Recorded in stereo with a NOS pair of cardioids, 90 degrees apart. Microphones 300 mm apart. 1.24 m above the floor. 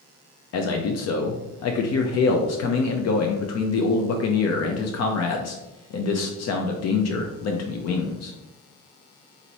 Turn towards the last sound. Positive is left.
turn(degrees=55)